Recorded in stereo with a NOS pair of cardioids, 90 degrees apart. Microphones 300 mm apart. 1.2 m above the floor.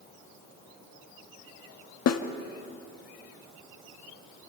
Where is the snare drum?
55° left, 1.5 m.